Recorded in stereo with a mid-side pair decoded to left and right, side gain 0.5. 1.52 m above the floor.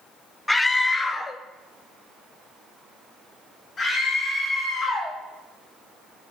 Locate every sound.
0.5 s a scream: 15° left, 0.5 m; by 5.2 s 40° left, 3 m